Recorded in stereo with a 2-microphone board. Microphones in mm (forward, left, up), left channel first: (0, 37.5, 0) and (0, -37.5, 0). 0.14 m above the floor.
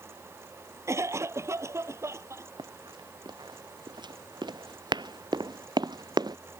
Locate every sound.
0.9 s a cough: 40° right (ahead or behind)
2.6 s running footsteps: 85° right; by 6.4 s 65° right (ahead or behind)